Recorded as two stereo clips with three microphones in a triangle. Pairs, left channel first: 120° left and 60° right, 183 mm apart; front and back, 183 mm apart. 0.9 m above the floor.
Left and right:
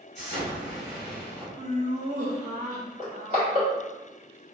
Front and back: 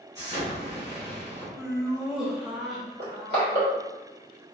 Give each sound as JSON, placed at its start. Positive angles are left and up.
{"t": 0.1, "sound": "an explosion", "azimuth_deg": 130, "distance_m": 1.7}
{"t": 1.6, "sound": "laughter", "azimuth_deg": -95, "distance_m": 0.8}
{"t": 3.0, "sound": "crushing", "azimuth_deg": 170, "distance_m": 1.7}